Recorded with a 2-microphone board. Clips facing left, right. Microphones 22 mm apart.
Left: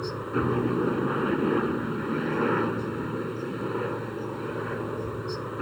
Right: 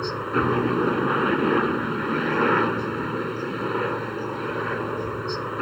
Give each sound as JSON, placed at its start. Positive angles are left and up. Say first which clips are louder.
{"t": 0.0, "sound": "a helicopter", "louder": "right 4 dB", "side_deg": -30}